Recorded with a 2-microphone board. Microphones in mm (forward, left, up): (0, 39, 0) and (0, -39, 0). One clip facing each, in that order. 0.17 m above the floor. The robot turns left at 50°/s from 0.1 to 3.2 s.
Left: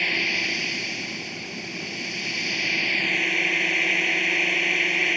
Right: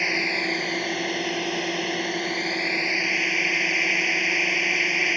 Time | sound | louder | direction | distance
0.0 | a drone | right 2 dB | 20° right | ?